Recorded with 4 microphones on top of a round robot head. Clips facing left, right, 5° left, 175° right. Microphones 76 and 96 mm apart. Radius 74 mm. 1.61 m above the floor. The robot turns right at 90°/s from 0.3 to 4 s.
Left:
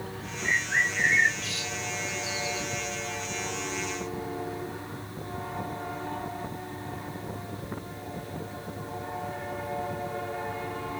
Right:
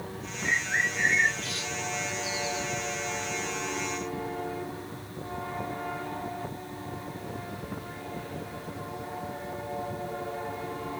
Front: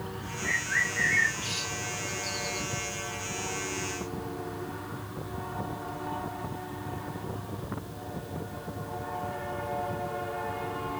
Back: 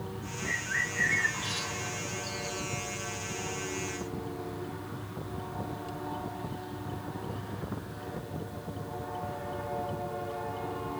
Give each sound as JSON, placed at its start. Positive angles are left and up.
{"t": 0.4, "sound": "a bird", "azimuth_deg": 165, "distance_m": 1.5}